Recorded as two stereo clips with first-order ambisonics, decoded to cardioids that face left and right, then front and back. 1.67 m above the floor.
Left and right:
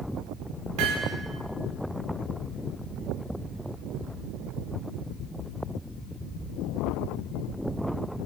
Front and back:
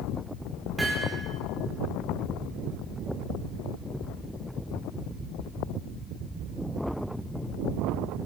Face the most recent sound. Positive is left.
turn(degrees=-100)